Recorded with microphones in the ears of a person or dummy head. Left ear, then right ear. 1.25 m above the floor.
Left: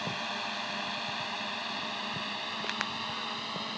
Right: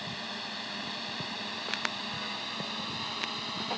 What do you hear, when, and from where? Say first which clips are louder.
0.0 s a drone: left 3 dB; 40° left (ahead or behind); by 3.8 s 15° left (ahead or behind)